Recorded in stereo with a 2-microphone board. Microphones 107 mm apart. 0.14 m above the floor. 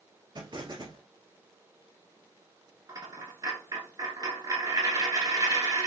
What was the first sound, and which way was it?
An explosion, 40° right (ahead or behind).